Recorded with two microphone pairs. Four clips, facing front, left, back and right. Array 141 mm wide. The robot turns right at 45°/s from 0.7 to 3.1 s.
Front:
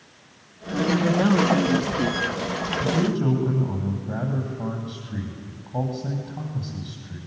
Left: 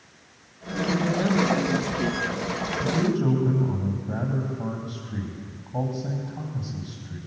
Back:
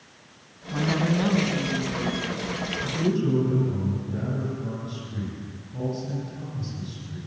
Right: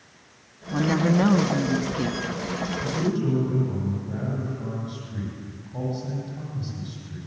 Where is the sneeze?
No sneeze in this recording.